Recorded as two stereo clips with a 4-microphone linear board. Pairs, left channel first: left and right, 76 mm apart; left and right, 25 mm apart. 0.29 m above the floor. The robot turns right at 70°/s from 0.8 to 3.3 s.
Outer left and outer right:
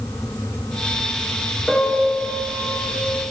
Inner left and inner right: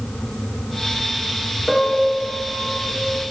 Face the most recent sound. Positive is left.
turn(degrees=-70)